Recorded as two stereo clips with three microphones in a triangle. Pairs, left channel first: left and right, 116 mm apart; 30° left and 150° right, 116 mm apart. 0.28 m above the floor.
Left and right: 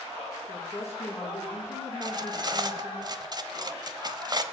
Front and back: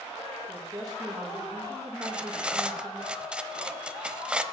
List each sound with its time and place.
0.5 s a woman speaking: 155° left, 5.5 m
2.0 s cutlery clinking: 75° right, 0.8 m